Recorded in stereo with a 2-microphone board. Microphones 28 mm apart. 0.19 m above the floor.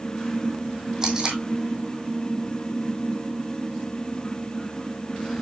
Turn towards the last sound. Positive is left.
turn(degrees=-20)  # may be behind; listen again after turning